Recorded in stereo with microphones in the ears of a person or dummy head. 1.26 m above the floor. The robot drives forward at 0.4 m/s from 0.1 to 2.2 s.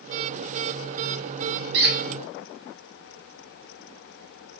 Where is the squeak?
50° right (ahead or behind), 0.6 m; by 2.0 s 45° right (ahead or behind), 0.7 m.